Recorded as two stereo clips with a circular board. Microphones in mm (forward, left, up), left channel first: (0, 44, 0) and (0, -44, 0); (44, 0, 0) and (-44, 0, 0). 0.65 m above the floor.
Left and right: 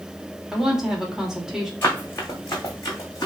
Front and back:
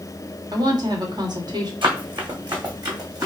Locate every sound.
0.5 s a woman speaking: 175° right, 1.5 m
1.8 s running footsteps: 150° left, 2.5 m; by 3.3 s 135° left, 2.5 m